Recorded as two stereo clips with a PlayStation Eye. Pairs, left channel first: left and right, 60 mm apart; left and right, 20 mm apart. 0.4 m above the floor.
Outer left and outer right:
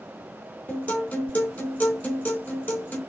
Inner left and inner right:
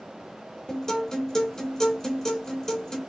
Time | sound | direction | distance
0.7 | a guitar | 25° left (ahead or behind) | 1.6 m